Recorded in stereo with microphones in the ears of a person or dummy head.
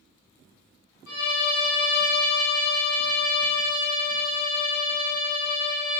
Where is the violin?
50° left (ahead or behind), 1.0 m.